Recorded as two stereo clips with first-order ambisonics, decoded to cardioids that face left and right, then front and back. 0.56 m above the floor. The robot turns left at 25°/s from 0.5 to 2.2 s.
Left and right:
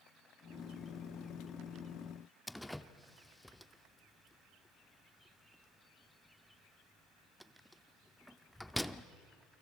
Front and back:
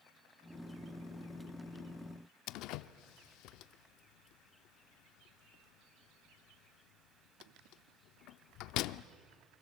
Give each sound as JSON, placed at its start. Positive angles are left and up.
{"t": 2.5, "sound": "a door slam", "azimuth_deg": 5, "distance_m": 0.5}